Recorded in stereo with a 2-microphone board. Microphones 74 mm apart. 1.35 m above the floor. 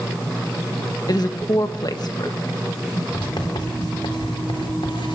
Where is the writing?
85° left, 4 m.